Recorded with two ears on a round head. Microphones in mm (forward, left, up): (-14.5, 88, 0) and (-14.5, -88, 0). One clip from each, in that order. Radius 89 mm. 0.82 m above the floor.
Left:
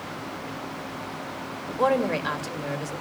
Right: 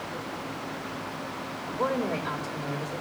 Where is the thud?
No thud in this recording.